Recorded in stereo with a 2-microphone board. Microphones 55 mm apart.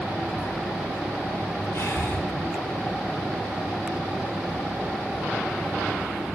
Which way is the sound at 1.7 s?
55° left (ahead or behind).